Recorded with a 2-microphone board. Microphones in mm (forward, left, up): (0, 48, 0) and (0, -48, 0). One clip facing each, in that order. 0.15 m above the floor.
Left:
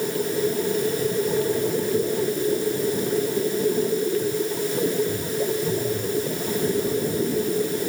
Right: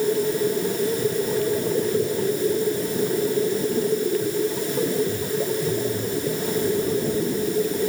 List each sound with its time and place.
Only background noise.